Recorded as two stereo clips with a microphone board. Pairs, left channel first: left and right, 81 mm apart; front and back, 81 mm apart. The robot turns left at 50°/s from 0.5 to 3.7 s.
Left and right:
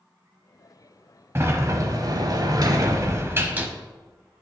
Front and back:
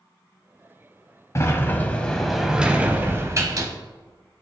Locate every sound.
1.4 s a sliding door: 40° right, 0.8 m; by 3.7 s 155° right, 0.8 m